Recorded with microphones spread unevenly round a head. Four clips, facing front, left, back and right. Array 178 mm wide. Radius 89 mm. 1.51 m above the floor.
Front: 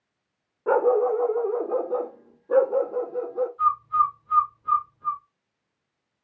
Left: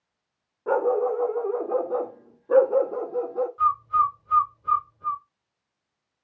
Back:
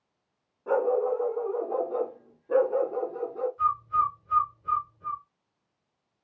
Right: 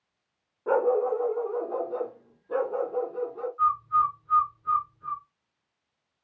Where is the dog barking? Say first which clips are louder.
Left 1 dB, front 5 dB; straight ahead, 1.1 m; by 3.5 s 95° left, 1.6 m.